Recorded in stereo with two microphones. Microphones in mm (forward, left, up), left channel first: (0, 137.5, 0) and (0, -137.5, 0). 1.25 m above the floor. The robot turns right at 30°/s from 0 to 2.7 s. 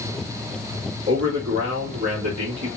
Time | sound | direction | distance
1.1 | a man speaking | 110° right | 2.5 m